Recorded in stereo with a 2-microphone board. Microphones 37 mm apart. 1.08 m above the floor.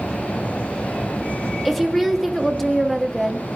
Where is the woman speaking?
5° left (ahead or behind), 1.5 m.